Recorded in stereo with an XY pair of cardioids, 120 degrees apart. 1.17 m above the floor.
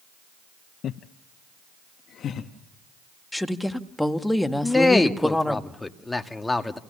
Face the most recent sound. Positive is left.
turn(degrees=10)